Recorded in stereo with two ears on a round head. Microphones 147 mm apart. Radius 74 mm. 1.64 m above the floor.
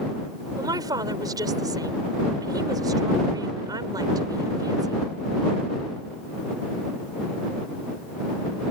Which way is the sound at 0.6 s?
25° right (ahead or behind).